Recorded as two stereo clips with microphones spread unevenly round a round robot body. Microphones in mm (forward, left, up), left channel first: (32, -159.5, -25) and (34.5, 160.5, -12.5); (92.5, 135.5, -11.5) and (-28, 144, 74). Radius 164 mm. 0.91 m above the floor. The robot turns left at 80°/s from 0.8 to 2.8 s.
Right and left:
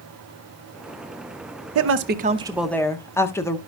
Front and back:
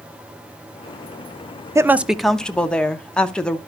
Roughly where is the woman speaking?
Left.